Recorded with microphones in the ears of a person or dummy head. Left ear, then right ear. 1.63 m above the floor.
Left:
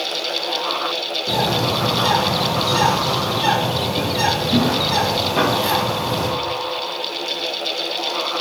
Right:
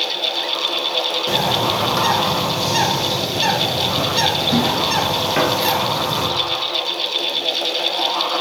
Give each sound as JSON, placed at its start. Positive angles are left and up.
{"t": 1.3, "sound": "a bird", "side_deg": -65, "distance_m": 2.5}